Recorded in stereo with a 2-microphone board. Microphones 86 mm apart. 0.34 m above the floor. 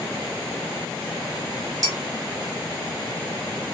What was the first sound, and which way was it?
Dishes clattering, 40° right (ahead or behind).